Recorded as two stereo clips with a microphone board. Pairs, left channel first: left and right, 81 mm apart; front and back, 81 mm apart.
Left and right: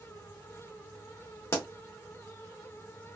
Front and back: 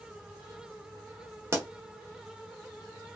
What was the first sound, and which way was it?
A pop, 135° left.